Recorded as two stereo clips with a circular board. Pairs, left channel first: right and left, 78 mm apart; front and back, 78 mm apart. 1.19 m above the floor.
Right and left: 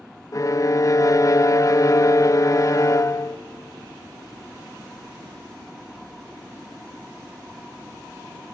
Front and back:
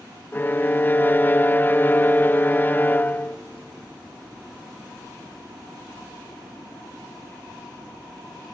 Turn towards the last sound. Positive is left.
turn(degrees=-60)